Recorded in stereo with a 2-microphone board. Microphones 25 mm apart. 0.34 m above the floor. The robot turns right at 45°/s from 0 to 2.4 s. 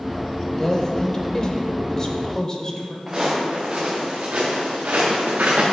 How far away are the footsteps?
About 2.5 m.